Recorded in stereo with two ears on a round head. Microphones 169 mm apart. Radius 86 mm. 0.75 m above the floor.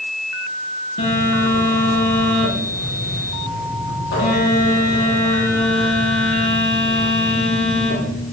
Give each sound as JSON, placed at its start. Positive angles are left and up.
{"t": 1.0, "sound": "a phone buzzing", "side_deg": 65, "distance_m": 8.5}